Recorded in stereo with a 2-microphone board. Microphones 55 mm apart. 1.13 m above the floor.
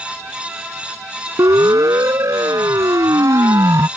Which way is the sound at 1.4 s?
85° right.